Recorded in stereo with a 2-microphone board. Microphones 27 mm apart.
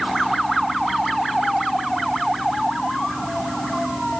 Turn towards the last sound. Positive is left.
No sound to turn to.